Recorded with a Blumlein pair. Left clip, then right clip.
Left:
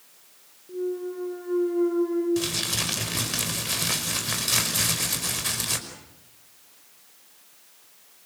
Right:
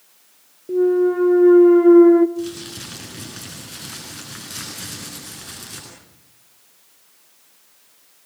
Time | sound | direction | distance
0.7 | a clunk | 40° right | 1.2 m
2.4 | crumpling | 40° left | 5 m